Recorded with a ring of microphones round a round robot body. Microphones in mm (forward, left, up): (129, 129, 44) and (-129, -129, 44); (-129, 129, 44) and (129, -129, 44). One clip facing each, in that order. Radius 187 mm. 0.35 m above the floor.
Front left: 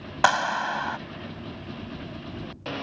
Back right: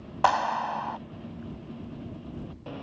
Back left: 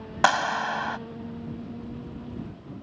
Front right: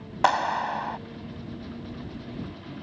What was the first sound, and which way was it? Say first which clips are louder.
A clap: front left 1 dB, even; 85° left.